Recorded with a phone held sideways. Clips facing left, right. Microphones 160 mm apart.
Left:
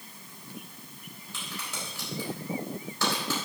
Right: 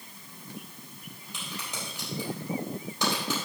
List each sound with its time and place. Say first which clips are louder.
1.3 s a crack: right 1 dB; 15° right (ahead or behind), 4.5 m